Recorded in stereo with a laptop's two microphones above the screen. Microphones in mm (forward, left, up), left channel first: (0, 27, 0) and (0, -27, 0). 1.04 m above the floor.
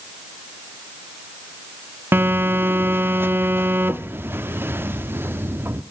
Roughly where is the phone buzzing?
Right.